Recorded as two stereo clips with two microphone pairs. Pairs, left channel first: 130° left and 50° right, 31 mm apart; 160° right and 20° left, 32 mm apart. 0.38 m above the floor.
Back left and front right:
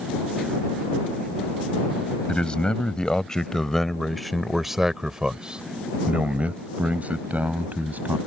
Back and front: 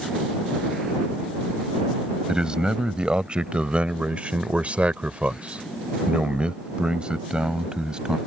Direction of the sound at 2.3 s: 80° left.